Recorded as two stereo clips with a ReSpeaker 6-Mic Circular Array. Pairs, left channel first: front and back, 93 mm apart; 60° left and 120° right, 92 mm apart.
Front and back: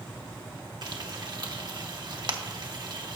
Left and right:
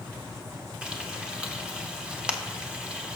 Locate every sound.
0.8 s frying: 165° left, 1.1 m